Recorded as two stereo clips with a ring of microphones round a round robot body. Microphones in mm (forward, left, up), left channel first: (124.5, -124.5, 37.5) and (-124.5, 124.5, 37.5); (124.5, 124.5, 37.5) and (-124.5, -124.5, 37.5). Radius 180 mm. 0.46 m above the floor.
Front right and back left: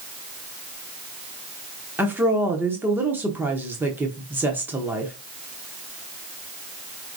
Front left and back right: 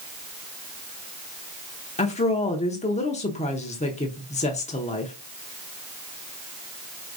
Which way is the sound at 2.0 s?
60° left.